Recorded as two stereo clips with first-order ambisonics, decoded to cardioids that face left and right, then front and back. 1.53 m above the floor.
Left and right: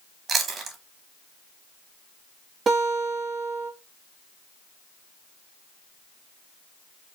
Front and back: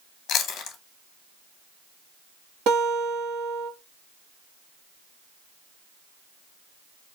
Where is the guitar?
150° right, 1.4 m.